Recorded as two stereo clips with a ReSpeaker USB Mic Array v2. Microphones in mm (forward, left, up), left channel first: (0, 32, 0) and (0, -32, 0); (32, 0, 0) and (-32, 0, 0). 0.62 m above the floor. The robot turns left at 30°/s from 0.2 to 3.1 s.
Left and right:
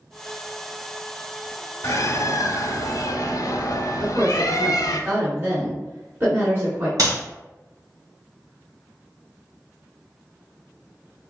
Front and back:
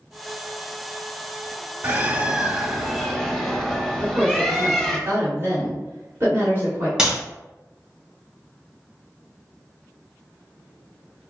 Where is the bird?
125° left, 0.8 m; by 5.0 s 85° left, 0.8 m.